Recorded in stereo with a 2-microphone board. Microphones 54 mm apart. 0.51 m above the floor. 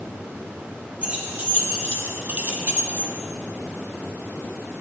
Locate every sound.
1.0 s keys jangling: 30° right (ahead or behind), 2.0 m; by 3.1 s 35° right (ahead or behind), 0.8 m